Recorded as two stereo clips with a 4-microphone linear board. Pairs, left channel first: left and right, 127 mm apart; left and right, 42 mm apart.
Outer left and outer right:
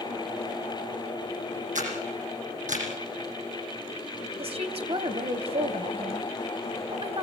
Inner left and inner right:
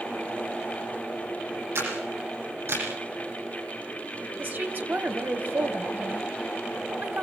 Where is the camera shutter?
85° right, 7.5 m.